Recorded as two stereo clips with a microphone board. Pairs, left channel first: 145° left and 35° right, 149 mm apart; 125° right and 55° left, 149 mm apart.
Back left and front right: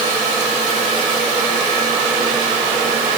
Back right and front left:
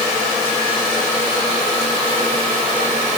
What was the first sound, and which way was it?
Only background noise.